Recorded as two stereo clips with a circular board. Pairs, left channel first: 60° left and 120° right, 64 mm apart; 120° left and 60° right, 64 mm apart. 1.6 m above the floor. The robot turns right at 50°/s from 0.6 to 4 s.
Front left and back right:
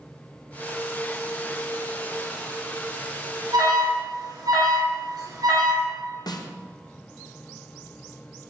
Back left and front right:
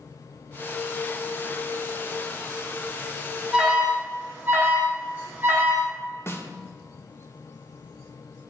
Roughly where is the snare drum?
Left.